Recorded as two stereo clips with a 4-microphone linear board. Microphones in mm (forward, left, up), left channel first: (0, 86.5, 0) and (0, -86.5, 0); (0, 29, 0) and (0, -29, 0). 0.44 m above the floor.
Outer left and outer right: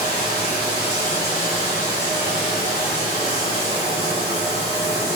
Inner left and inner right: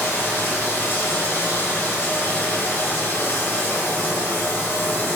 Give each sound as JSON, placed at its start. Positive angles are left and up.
{"t": 0.0, "sound": "running water", "side_deg": 35, "distance_m": 0.9}